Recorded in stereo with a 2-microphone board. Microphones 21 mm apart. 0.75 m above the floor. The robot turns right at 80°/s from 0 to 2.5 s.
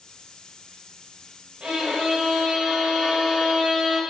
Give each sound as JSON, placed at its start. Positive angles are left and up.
{"t": 1.6, "sound": "a violin", "azimuth_deg": -95, "distance_m": 1.7}